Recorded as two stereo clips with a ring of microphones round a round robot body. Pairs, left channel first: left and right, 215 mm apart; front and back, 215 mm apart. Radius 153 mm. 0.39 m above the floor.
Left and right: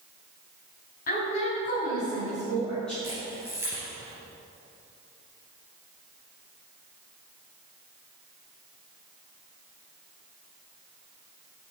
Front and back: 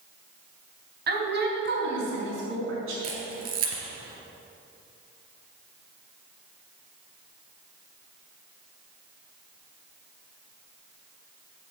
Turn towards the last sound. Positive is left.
turn(degrees=-175)